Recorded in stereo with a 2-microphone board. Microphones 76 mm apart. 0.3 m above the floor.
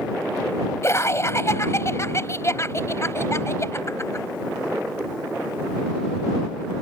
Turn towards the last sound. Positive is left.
turn(degrees=40)  # may be behind; listen again after turning